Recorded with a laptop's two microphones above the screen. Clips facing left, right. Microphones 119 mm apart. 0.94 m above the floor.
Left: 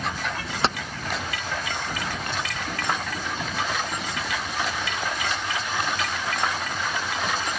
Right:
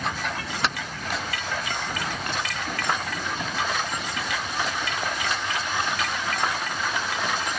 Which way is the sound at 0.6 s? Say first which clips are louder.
Left 4 dB; 30° left (ahead or behind).